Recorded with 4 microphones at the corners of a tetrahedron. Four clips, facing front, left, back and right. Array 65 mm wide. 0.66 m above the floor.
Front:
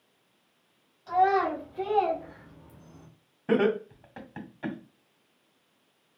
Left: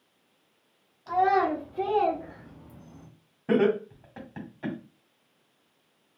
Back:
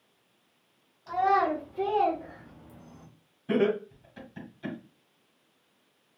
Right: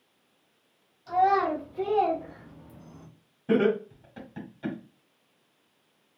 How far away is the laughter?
About 1.8 m.